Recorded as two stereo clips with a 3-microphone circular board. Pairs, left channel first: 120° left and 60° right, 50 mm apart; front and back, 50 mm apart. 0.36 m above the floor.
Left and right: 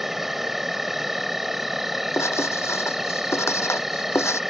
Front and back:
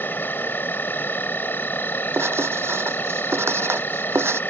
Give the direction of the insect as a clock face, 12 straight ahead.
11 o'clock.